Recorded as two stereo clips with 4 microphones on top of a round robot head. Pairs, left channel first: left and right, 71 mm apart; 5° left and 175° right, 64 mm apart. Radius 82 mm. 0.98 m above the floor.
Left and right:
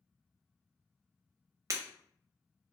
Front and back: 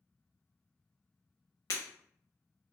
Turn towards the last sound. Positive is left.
turn(degrees=-40)